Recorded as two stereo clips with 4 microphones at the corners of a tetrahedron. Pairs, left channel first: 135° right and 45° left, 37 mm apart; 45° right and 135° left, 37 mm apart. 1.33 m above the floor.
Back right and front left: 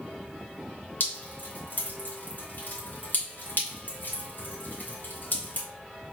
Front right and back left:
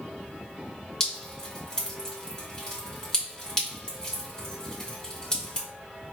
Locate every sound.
1.0 s dripping: 110° right, 1.8 m